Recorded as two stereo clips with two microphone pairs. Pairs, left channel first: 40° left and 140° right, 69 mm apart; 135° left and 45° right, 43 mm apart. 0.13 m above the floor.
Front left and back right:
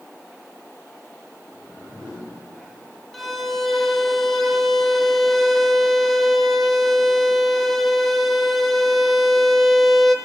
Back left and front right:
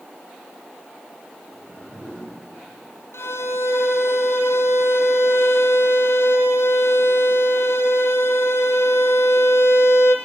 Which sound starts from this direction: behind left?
A violin, at 3.1 s.